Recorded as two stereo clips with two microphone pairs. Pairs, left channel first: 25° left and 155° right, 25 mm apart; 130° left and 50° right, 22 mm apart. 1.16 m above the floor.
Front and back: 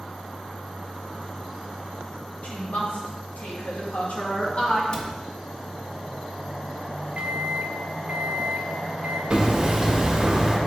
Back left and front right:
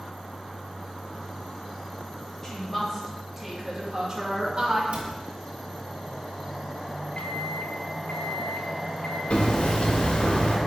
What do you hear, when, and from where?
2.4 s a woman speaking: 50° left, 3 m; by 4.8 s 20° right, 2 m
4.9 s a cupboard door: 40° right, 1.3 m
7.2 s a microwave: 165° left, 1.1 m
9.3 s hammering: 145° left, 1.7 m